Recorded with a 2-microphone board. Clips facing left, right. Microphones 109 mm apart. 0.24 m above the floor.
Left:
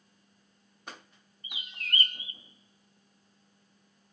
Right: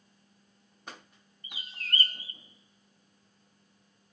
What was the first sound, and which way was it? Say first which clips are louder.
A bird: even; 40° right (ahead or behind).